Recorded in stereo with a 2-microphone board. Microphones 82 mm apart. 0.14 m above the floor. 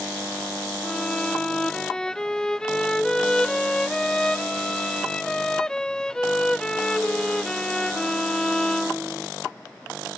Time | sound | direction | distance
0.8 | a violin | 10° left (ahead or behind) | ?